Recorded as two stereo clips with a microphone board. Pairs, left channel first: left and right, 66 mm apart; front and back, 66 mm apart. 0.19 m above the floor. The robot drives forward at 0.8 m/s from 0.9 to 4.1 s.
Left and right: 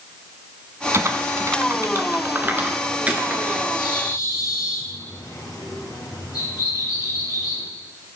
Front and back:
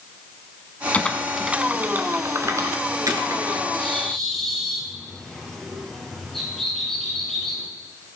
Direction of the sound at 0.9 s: 65° right.